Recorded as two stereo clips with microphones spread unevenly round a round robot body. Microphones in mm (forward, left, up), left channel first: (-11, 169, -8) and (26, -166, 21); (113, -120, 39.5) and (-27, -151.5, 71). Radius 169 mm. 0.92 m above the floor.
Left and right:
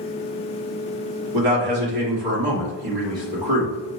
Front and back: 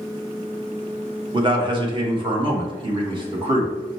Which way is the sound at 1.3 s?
105° right.